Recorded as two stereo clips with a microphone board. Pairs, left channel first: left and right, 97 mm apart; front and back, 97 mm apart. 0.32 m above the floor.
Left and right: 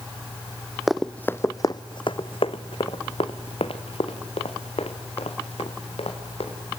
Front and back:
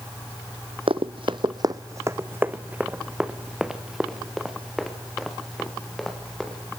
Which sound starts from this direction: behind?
Running footsteps, at 0.9 s.